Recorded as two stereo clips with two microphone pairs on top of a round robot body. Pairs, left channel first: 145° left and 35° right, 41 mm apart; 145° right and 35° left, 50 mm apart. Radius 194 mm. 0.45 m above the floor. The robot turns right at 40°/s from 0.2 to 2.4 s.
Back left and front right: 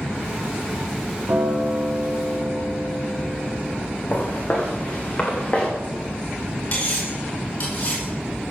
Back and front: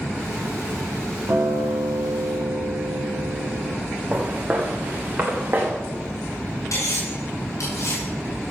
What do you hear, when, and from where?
1.3 s a guitar: straight ahead, 2 m; by 3.8 s 45° left, 2 m
4.1 s footsteps: 95° left, 3 m; by 5.7 s 80° left, 3.5 m
6.7 s cutlery clinking: 170° right, 5.5 m